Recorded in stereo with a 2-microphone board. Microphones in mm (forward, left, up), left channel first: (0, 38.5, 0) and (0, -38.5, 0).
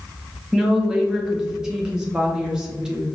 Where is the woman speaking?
10° right (ahead or behind), 1.1 m.